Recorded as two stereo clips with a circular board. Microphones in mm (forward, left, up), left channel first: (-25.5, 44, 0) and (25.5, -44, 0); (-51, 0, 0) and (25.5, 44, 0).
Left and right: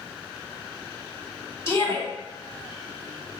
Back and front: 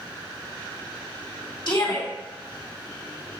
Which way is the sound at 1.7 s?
175° right.